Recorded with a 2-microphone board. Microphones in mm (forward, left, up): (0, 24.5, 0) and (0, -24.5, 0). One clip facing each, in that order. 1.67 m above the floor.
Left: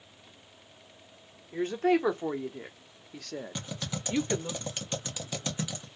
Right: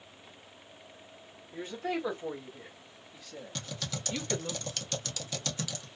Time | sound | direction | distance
1.5 | a woman speaking | 55° left (ahead or behind) | 1.2 m
3.5 | typing on a keyboard | 20° left (ahead or behind) | 0.8 m